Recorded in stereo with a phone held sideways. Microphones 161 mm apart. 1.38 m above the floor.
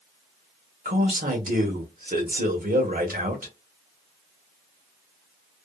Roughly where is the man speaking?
Right.